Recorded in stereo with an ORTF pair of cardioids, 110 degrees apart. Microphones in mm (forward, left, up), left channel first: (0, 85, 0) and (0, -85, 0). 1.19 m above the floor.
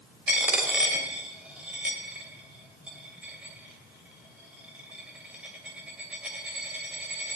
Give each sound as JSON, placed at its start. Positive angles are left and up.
{"t": 0.3, "sound": "a dropped coin", "azimuth_deg": -5, "distance_m": 2.5}